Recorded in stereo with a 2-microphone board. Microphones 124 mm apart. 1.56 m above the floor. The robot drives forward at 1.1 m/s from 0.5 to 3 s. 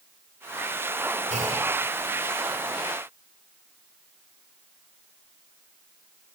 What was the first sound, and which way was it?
A clunk, 75° right (ahead or behind).